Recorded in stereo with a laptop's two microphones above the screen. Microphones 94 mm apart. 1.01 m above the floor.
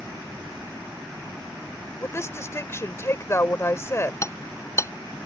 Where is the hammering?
35° left (ahead or behind).